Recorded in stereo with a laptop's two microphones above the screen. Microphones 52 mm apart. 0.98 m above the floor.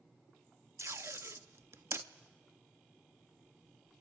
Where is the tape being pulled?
60° right (ahead or behind), 0.7 m.